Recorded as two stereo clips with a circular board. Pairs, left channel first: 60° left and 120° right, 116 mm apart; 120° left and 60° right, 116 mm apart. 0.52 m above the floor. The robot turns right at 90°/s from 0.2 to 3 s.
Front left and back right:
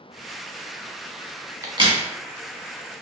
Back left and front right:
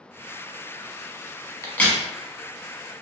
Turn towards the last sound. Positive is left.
turn(degrees=-55)